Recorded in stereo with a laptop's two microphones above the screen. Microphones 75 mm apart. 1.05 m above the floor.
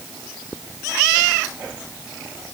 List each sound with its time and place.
Only background noise.